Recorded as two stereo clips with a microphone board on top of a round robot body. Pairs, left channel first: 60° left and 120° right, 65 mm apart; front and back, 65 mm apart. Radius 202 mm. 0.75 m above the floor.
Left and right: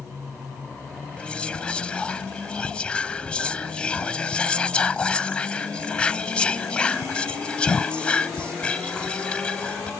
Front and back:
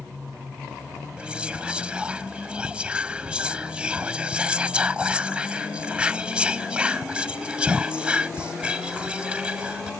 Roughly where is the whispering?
Behind left.